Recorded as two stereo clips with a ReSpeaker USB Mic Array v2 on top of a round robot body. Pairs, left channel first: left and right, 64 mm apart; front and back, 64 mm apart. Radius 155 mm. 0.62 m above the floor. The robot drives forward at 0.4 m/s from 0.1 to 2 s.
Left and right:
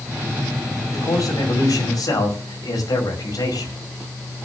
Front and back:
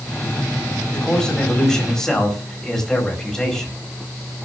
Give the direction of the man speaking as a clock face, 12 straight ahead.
9 o'clock.